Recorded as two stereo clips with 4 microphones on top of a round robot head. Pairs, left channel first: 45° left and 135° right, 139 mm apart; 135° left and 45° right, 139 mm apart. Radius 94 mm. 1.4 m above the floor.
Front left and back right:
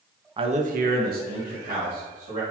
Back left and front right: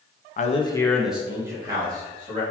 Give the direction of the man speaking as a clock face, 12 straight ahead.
6 o'clock.